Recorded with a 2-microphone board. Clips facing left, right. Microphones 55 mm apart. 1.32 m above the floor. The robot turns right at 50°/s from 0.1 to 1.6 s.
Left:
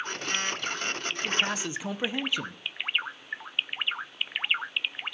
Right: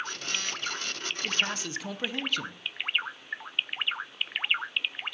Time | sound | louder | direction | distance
1.2 | a man speaking | left 1 dB | centre (ahead or behind) | 1.0 m